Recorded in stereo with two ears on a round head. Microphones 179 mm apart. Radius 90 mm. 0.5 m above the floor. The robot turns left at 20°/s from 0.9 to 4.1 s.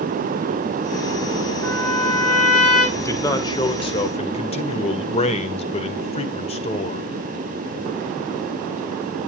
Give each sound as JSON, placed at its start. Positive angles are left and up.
{"t": 1.6, "sound": "a trumpet", "side_deg": 10, "distance_m": 7.0}
{"t": 2.9, "sound": "a man speaking", "side_deg": 15, "distance_m": 1.8}